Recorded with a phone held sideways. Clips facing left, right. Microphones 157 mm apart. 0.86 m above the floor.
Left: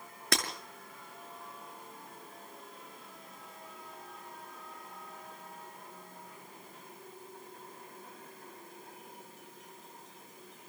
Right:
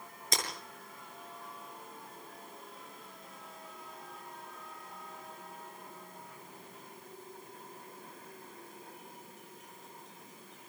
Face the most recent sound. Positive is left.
turn(degrees=70)  # may be behind; listen again after turning